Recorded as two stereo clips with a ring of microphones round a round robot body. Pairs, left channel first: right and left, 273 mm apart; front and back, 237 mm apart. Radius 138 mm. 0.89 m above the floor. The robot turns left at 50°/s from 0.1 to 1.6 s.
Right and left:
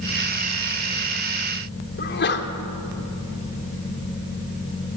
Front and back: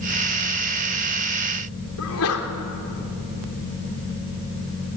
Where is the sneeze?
35° right, 3 m.